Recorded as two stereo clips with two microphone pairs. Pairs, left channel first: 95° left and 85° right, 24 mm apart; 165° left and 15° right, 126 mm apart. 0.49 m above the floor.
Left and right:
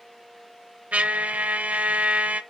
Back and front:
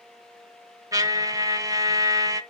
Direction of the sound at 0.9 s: 80° right.